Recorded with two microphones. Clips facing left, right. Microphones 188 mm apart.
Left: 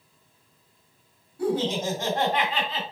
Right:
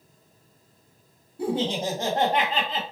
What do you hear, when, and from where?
1.4 s laughter: 25° right (ahead or behind), 1.4 m; by 2.8 s 50° right (ahead or behind), 2.0 m